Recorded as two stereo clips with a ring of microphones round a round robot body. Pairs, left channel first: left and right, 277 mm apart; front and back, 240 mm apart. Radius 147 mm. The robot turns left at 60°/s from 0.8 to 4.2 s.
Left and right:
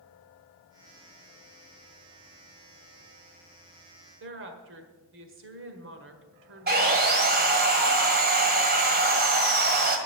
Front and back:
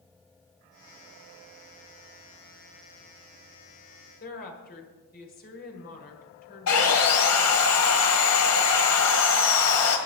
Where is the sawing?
30° right, 1.4 m.